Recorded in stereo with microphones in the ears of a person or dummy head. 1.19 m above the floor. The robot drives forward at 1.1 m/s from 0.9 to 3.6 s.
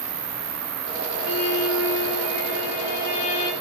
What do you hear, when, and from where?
0.0 s an insect: 80° right, 1.7 m; by 3.6 s 30° right (ahead or behind), 3 m
1.2 s a violin: 85° left, 1.9 m; by 3.5 s 35° left (ahead or behind), 3 m